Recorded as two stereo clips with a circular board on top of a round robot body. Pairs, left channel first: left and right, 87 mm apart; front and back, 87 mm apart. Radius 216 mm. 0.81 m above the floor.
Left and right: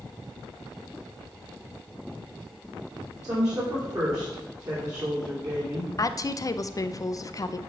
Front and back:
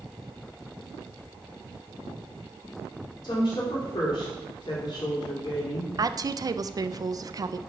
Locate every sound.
3.2 s a woman speaking: 40° right, 2.5 m
6.0 s a woman speaking: 135° left, 0.5 m